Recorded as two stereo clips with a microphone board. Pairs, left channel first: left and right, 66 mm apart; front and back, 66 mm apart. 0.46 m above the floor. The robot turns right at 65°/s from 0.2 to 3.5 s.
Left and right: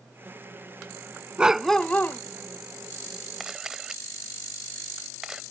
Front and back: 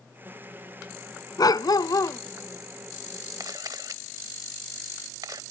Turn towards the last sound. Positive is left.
turn(degrees=-170)